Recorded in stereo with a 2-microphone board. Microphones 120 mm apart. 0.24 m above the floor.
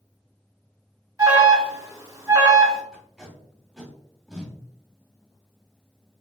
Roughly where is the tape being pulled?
Centre.